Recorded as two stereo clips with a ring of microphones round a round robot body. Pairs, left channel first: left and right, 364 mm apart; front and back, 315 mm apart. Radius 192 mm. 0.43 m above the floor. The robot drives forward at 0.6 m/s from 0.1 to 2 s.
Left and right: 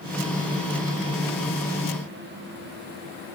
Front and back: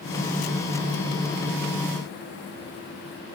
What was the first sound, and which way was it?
Only background noise.